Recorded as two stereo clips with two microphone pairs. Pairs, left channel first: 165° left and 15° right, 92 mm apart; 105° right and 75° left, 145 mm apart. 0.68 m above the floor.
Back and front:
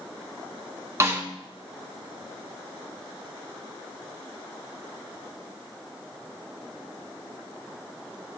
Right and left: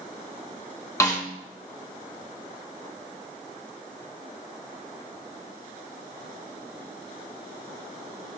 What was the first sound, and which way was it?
A snare drum, 55° right.